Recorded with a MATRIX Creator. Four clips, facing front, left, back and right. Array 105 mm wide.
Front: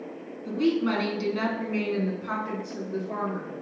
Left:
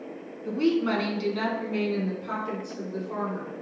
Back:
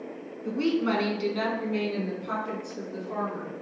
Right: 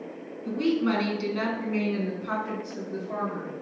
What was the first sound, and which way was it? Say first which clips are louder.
A woman speaking: left 1 dB, front 1 dB; 150° left.